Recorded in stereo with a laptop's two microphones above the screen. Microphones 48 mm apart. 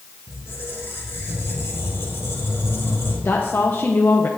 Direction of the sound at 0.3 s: 60° left (ahead or behind).